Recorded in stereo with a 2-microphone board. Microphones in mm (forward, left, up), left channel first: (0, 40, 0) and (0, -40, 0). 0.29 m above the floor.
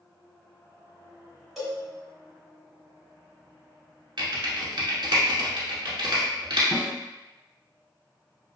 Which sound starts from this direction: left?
A snare drum, at 6.7 s.